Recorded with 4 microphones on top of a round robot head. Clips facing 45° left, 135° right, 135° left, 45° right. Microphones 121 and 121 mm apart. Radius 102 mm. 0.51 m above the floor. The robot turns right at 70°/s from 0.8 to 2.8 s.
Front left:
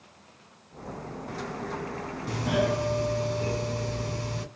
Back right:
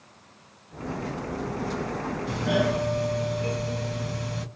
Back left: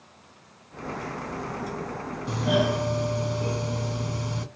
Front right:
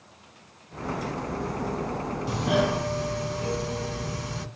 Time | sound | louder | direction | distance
2.3 | a doorbell | back right 1 dB, back left 1 dB | 40° left | 2 m